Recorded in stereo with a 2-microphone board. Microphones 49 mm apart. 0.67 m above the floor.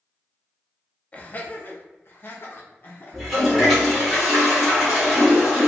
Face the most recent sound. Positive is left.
turn(degrees=0)  # may be behind; listen again after turning